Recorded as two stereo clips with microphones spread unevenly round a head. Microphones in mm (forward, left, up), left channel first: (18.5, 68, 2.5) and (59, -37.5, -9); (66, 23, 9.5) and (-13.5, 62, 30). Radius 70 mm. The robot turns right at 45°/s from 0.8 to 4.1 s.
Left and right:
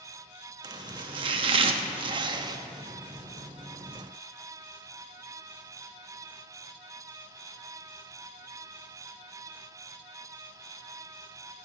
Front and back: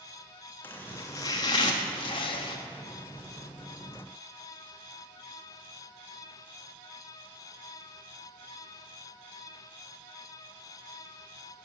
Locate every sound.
0.6 s chopping: 110° right, 0.7 m; by 2.6 s 30° right, 0.7 m